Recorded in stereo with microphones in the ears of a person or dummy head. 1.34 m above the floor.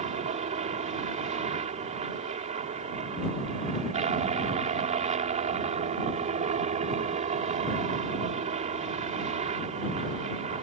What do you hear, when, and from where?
0.0 s a helicopter: 30° right (ahead or behind)